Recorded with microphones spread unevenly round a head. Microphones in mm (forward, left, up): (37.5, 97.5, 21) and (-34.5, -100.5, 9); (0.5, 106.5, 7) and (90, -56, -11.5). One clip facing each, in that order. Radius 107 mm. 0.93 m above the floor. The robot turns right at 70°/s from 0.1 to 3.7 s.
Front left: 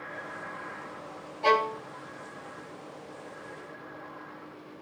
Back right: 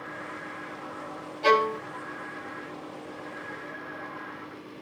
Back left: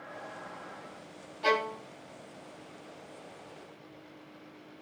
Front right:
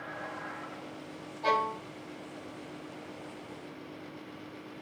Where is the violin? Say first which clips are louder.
Back right 3 dB, back left 2 dB; straight behind, 0.8 m; by 1.8 s 150° right, 0.8 m.